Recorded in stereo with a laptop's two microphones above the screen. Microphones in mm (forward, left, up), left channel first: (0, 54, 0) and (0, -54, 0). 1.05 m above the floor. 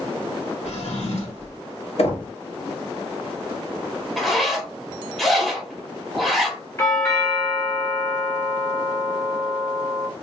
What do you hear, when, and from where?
0.7 s a drawer: 80° left, 1.3 m
2.0 s knocking: 70° left (ahead or behind), 1.0 m
4.2 s a zipper: centre (ahead or behind), 1.0 m
6.8 s a doorbell: 25° left (ahead or behind), 1.3 m